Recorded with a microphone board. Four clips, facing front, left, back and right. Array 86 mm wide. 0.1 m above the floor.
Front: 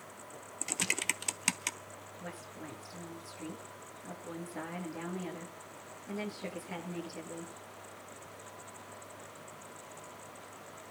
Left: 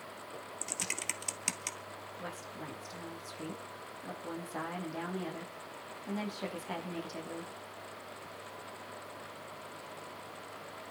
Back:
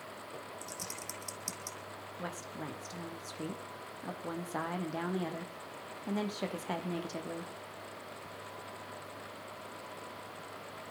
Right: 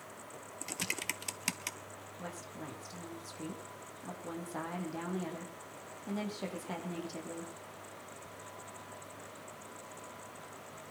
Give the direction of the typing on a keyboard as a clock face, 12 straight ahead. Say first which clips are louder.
Right 4 dB, front 6 dB; 12 o'clock.